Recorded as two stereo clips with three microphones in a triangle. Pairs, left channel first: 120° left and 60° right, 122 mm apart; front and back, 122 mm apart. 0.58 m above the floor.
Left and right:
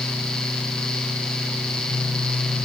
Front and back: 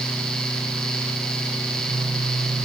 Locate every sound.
Only background noise.